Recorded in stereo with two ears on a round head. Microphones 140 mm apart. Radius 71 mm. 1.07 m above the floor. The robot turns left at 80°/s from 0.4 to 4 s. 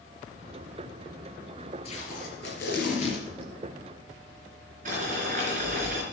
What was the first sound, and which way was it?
Tape being pulled, 140° left.